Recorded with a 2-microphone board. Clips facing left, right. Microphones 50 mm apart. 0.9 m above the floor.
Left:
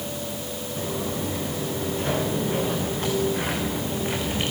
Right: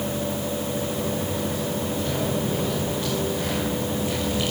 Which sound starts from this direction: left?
Footsteps, at 0.8 s.